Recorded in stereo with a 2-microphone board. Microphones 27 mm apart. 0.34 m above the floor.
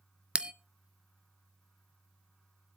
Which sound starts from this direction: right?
A bell, at 0.3 s.